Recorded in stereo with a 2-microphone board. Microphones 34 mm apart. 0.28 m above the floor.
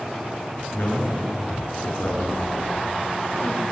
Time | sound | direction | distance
0.7 | a man speaking | 65° left (ahead or behind) | 4 m